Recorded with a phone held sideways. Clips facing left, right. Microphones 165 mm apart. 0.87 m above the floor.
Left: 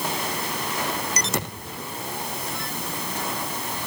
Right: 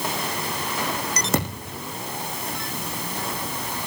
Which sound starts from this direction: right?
A thud, at 1.3 s.